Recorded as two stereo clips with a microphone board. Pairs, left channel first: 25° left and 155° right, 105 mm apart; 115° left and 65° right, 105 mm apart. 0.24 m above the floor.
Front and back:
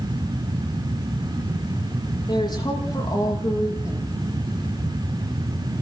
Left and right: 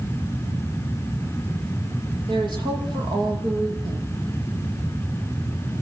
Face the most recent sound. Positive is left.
turn(degrees=-30)